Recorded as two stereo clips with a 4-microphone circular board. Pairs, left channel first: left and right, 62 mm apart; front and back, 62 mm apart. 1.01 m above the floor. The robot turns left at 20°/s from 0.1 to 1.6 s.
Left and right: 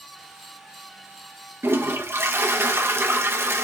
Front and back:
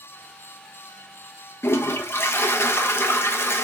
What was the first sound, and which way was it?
A toilet flushing, 45° right.